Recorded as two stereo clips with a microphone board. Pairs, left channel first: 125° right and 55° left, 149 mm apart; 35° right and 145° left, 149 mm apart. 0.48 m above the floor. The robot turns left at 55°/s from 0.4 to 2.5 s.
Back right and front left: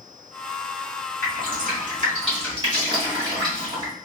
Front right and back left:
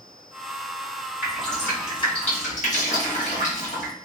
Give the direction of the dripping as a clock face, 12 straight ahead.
10 o'clock.